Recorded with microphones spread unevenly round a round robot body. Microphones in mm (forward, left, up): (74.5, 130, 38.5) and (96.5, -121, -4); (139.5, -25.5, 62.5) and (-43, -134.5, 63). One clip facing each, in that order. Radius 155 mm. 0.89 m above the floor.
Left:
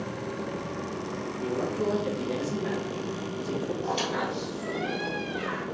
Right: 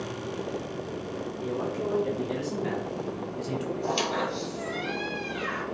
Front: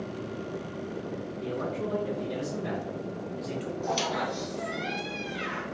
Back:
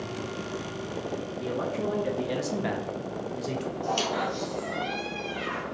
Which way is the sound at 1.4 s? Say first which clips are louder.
Left 3 dB, back 2 dB; 170° left.